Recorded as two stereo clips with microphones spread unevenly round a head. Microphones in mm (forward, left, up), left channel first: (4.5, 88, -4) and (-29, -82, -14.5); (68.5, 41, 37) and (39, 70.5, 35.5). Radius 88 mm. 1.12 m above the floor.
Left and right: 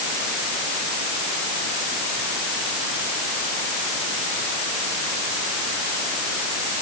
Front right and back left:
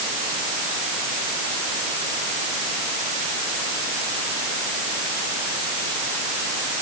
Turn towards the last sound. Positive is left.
No sound to turn to.